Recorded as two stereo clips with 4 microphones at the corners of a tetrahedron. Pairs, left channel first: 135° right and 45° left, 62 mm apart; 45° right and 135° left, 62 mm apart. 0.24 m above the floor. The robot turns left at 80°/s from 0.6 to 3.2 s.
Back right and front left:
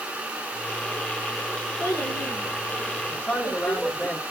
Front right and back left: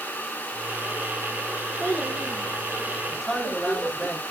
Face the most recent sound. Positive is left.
turn(degrees=-130)